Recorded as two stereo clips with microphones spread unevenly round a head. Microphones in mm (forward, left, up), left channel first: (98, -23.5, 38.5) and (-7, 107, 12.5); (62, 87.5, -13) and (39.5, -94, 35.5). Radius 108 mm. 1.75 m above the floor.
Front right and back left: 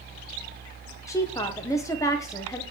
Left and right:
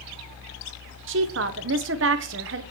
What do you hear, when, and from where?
1.1 s a woman speaking: 125° right, 1.3 m